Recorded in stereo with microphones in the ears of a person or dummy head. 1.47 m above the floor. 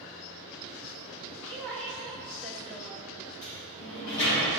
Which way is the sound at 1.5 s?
Centre (ahead or behind).